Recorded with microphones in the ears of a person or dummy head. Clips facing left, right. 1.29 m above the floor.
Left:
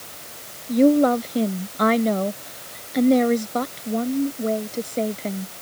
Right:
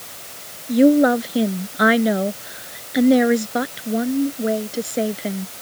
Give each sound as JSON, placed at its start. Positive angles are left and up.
{"t": 0.7, "sound": "a woman speaking", "side_deg": -10}